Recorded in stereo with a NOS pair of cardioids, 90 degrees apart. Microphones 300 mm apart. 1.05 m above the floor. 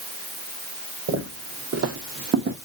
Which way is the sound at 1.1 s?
65° right.